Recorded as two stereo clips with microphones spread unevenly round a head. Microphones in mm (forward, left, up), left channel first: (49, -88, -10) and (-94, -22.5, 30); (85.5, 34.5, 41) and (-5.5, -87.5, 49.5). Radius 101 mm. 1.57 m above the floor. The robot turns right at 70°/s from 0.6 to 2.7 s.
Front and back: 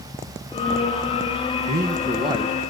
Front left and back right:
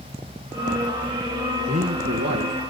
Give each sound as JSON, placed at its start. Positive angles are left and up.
{"t": 1.7, "sound": "a man speaking", "azimuth_deg": 180, "distance_m": 1.7}